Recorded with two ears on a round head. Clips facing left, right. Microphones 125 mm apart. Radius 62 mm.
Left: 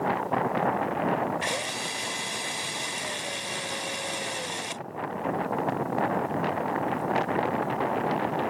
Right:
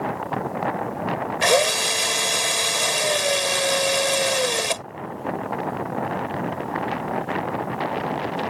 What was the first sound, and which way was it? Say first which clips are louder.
A drill: right 12 dB; 80° right.